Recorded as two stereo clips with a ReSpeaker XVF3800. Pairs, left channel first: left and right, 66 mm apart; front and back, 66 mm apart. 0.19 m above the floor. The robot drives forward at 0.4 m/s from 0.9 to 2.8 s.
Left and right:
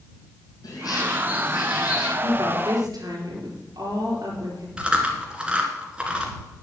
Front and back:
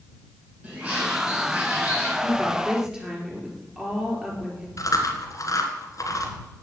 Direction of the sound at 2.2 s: 95° right.